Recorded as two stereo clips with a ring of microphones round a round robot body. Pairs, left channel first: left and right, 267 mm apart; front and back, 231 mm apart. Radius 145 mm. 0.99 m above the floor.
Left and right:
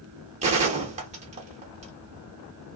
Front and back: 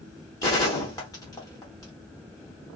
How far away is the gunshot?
About 0.6 m.